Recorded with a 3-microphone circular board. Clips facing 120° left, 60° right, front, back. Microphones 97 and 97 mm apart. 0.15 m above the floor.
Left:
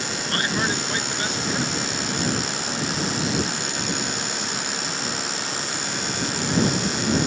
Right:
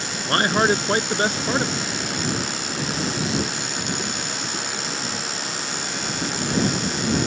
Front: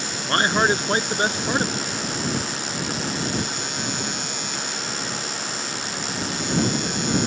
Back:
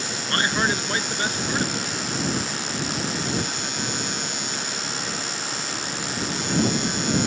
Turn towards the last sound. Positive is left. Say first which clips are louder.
# right 7 dB, front 4 dB
turn(degrees=-45)